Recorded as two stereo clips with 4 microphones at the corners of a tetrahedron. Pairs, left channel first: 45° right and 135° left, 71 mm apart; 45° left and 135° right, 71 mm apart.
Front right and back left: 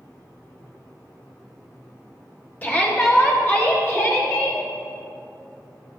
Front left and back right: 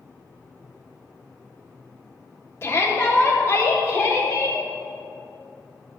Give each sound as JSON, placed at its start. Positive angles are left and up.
{"t": 2.6, "sound": "a shout", "azimuth_deg": 10, "distance_m": 1.6}